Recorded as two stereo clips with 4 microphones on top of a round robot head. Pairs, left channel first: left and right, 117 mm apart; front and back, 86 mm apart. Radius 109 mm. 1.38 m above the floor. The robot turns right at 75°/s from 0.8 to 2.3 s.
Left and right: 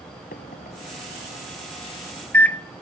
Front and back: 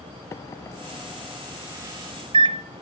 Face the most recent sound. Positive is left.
turn(degrees=165)